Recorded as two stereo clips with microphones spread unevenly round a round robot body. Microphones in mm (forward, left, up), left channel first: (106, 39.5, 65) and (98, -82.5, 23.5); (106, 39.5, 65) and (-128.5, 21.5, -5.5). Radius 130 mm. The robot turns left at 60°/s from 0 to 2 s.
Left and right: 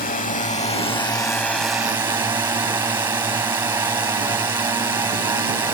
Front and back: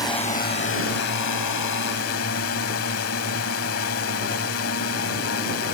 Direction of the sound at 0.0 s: 85° left.